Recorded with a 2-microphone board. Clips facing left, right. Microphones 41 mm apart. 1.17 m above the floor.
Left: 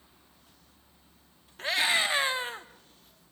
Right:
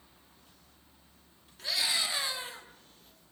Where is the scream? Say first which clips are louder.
Left 6 dB; 45° left (ahead or behind), 2.5 m; by 2.7 s 40° left (ahead or behind), 1.7 m.